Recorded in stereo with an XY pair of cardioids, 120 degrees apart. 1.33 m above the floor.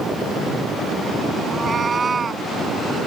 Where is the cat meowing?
30° right; by 2.5 s 25° right.